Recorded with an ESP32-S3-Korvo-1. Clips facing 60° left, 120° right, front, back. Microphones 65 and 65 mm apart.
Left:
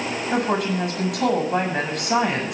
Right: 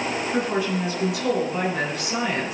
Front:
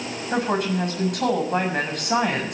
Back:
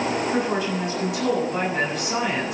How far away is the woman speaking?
About 7 m.